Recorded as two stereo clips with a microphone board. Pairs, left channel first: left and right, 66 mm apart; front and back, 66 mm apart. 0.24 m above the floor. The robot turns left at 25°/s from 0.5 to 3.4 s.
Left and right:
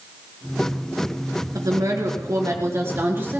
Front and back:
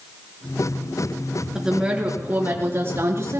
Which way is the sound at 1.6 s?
100° right.